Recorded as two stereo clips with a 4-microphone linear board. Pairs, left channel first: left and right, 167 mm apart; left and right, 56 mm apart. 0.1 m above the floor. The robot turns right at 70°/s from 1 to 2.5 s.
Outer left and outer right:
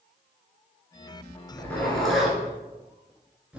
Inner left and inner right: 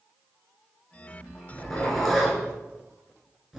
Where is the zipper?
15° left (ahead or behind), 1.3 m; by 3.6 s 10° right (ahead or behind), 1.3 m.